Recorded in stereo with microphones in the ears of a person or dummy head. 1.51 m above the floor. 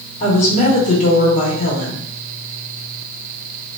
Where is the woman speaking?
40° left (ahead or behind), 1.4 m.